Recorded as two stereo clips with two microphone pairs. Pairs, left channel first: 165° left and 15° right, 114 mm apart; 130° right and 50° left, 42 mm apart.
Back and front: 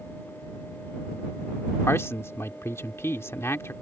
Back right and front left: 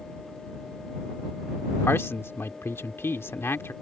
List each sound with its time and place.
1.8 s a man speaking: 130° right